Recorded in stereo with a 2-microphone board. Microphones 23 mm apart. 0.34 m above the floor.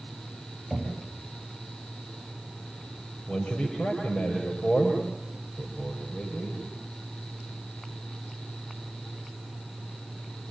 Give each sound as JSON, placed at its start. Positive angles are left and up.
{"t": 0.7, "sound": "knocking", "side_deg": 10, "distance_m": 9.5}
{"t": 3.3, "sound": "a man speaking", "side_deg": 80, "distance_m": 8.0}